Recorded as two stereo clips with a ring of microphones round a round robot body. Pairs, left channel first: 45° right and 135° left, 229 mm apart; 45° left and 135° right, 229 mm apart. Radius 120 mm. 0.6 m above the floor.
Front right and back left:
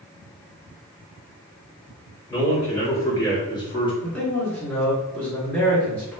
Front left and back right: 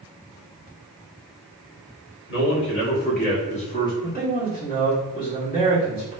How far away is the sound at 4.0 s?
About 1.5 m.